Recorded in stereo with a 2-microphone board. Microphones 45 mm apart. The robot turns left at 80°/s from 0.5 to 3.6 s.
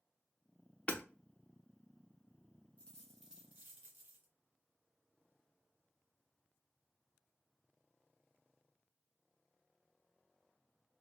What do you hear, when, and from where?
0.9 s hammering: 30° left (ahead or behind), 0.6 m; by 1.0 s 25° left (ahead or behind), 0.6 m
2.8 s a dropped coin: 30° left, 1.6 m; by 4.3 s 35° right, 1.6 m